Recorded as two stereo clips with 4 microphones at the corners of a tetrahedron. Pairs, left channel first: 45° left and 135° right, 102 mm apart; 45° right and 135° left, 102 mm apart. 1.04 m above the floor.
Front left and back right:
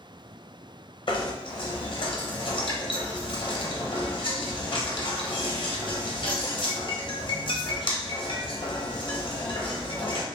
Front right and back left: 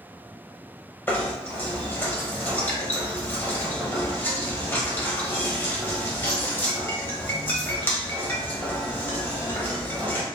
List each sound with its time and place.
1.1 s knocking: 20° left, 0.7 m